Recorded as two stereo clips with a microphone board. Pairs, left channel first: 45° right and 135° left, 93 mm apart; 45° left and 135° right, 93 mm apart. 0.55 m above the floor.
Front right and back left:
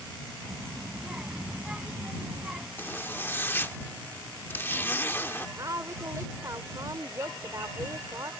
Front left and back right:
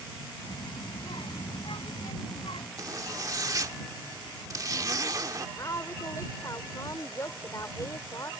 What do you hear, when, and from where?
0.5 s a child speaking: 55° left
2.8 s a zipper: 105° right
5.6 s a woman speaking: 90° left